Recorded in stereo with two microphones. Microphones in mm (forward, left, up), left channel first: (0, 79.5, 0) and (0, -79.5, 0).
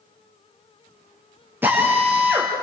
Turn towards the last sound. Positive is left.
turn(degrees=-10)  # may be behind; listen again after turning